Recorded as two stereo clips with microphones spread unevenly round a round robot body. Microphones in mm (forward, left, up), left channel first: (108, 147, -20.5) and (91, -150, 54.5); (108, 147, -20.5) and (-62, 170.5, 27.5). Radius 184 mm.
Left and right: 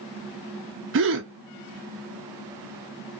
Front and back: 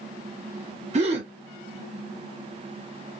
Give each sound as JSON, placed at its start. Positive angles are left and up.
{"t": 0.9, "sound": "a gasp", "azimuth_deg": -135, "distance_m": 0.5}